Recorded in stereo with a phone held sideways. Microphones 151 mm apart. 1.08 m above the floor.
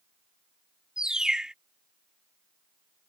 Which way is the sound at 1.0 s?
5° right (ahead or behind).